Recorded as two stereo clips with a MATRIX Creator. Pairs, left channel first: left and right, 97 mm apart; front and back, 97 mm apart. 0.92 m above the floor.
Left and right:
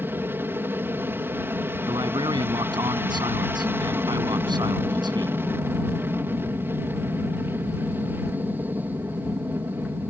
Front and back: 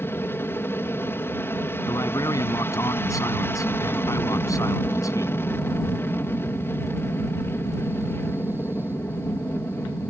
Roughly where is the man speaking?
Ahead right.